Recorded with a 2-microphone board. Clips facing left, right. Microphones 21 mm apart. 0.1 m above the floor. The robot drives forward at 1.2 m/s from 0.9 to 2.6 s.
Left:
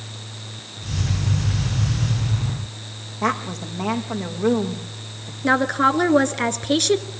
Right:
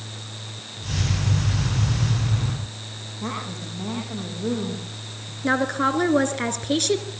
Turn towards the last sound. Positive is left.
turn(degrees=15)  # may be behind; listen again after turning